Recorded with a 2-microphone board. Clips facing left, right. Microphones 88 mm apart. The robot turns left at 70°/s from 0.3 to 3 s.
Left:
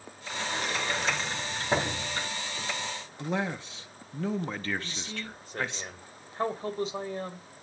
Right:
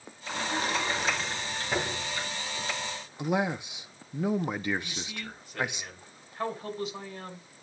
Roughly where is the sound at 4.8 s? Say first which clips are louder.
Left 1 dB; left.